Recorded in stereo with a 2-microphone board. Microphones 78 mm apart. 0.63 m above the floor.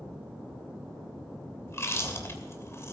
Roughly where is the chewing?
Left.